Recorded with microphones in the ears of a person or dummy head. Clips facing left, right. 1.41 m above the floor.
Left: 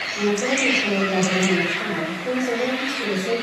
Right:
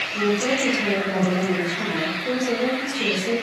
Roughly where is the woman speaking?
Right.